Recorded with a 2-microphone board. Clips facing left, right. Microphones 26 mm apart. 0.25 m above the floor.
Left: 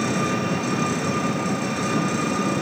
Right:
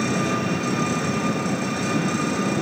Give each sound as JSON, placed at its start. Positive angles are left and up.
{"t": 0.0, "sound": "an engine running", "side_deg": 0, "distance_m": 4.0}